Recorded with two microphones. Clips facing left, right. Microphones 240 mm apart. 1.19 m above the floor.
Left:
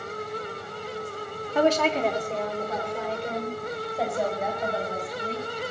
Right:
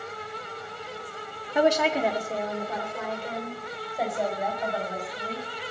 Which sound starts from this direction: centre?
A woman speaking, at 1.6 s.